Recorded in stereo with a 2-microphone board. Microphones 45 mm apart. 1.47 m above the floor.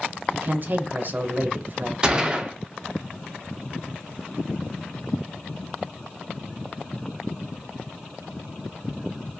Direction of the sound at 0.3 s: 50° right (ahead or behind).